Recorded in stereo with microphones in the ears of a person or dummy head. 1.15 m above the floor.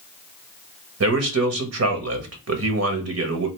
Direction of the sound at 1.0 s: 75° right (ahead or behind).